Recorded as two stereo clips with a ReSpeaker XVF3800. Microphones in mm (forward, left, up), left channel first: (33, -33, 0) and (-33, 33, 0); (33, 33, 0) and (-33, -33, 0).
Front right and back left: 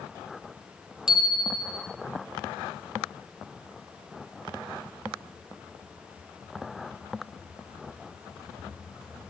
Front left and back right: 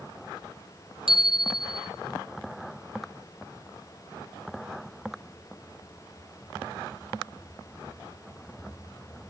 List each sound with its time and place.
1.1 s a bicycle bell: 140° right, 3.5 m